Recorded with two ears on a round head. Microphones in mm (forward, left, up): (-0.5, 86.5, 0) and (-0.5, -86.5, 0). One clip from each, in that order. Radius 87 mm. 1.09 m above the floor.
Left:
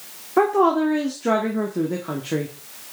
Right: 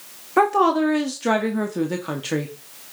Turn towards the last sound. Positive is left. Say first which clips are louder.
# even
turn(degrees=-85)